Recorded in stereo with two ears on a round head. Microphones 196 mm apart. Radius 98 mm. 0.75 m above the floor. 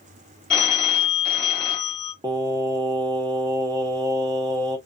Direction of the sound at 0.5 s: 5° left (ahead or behind).